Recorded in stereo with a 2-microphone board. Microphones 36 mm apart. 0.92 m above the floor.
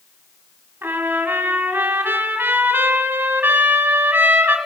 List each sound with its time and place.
0.8 s a trumpet: 75° right (ahead or behind), 3.5 m